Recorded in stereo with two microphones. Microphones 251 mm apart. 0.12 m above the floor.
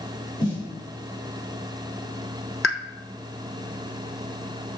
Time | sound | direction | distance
0.4 | a snare drum | 15° left (ahead or behind) | 4.5 m
2.6 | a pop | 60° left (ahead or behind) | 1.0 m